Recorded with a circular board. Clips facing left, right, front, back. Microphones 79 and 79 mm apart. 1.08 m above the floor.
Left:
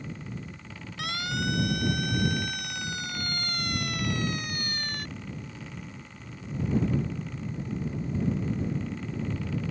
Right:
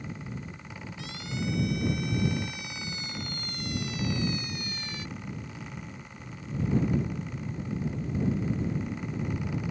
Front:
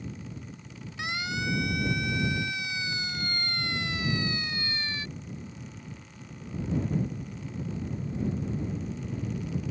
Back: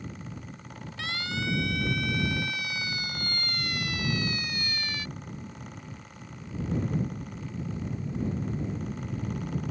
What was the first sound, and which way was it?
A siren, 70° left.